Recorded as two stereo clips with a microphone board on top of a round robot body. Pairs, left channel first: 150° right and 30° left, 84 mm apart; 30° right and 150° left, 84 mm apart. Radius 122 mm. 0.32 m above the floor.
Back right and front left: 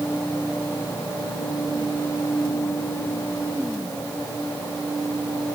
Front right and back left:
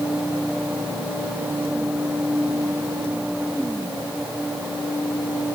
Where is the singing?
No singing in this recording.